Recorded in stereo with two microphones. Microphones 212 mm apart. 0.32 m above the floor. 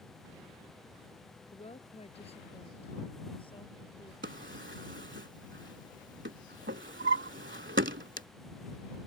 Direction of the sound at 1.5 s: 30° left (ahead or behind).